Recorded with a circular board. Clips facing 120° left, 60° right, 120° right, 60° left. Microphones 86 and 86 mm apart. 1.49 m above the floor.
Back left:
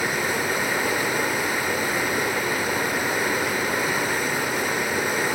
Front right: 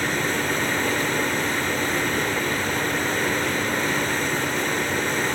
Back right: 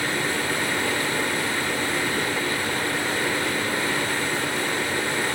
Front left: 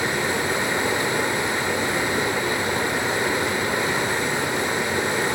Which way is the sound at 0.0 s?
60° left.